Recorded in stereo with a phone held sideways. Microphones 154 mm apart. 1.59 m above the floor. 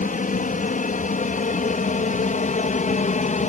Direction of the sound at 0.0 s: 60° left (ahead or behind).